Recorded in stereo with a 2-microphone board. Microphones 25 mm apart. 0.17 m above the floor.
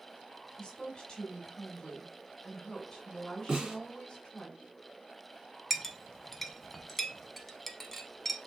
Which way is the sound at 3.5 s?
40° right (ahead or behind).